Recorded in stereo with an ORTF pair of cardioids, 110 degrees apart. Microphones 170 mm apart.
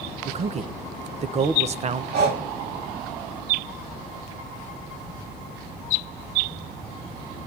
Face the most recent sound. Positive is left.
turn(degrees=-65)